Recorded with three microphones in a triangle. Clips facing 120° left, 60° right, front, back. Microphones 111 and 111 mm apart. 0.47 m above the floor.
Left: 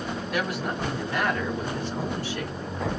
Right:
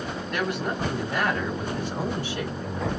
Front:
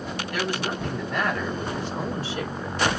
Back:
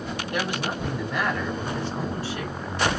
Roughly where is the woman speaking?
Behind.